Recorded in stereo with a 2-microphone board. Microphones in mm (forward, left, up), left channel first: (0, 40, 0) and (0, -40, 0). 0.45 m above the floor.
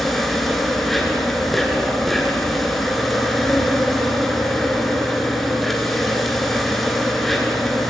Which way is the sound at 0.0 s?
5° left (ahead or behind).